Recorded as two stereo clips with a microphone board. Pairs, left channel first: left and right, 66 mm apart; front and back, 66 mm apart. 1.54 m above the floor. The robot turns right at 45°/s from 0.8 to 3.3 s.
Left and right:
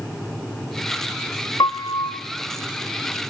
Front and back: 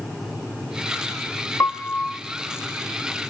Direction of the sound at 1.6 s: 55° left.